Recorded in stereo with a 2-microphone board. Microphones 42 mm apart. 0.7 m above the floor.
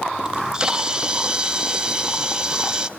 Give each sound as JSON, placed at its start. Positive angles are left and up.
{"t": 0.2, "sound": "a camera shutter", "side_deg": -20, "distance_m": 0.5}